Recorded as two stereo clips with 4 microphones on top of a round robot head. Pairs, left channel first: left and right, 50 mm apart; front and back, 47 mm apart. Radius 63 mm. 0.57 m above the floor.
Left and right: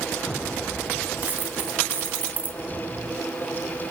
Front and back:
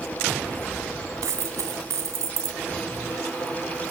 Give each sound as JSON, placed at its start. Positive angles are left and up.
{"t": 1.2, "sound": "a dropped coin", "azimuth_deg": -155, "distance_m": 2.0}